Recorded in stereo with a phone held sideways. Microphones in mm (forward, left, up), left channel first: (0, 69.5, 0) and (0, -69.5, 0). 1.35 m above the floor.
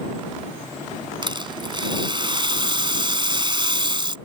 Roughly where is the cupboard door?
No cupboard door in this recording.